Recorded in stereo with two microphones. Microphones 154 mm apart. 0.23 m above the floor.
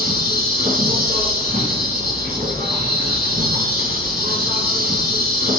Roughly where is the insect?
Right.